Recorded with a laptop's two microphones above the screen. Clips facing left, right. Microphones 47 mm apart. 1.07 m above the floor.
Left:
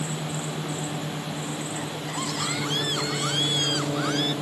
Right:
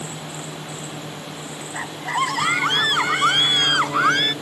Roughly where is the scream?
Right.